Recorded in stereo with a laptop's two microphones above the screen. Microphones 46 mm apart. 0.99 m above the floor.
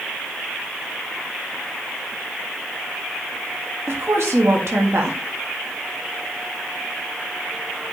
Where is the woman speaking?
65° right (ahead or behind), 1.6 m.